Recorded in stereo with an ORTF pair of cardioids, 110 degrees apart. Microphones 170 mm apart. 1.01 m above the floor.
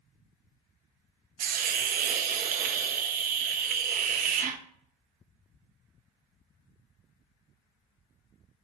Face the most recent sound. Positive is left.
turn(degrees=-55)